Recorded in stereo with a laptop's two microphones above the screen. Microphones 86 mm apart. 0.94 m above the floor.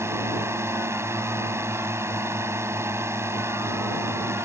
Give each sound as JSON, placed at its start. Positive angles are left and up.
{"t": 0.0, "sound": "a drone", "side_deg": -30}